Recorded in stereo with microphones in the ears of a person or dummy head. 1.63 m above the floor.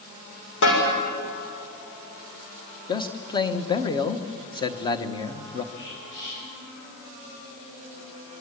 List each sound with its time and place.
0.6 s a snare drum: 70° left (ahead or behind), 6 m
2.9 s a man speaking: 25° left (ahead or behind), 1.2 m
5.7 s whispering: 65° left (ahead or behind), 9.5 m